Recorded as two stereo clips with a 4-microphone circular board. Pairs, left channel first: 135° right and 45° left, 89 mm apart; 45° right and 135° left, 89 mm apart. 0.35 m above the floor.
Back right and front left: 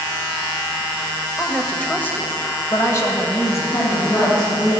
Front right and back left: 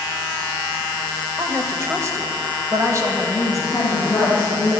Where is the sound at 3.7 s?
105° right, 3 m.